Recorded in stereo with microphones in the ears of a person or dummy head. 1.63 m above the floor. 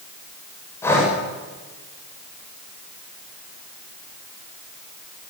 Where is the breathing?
15° left (ahead or behind), 7.5 m.